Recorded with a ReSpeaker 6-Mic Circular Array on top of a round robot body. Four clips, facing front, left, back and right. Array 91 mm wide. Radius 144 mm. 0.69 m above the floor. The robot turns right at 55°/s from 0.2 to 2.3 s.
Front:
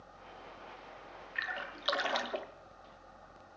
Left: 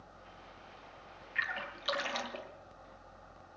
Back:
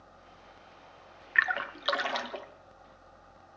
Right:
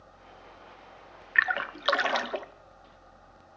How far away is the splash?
About 0.8 m.